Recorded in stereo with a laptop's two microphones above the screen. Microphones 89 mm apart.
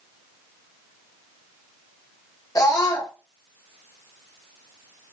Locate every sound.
2.5 s a scream: 40° left (ahead or behind), 0.8 m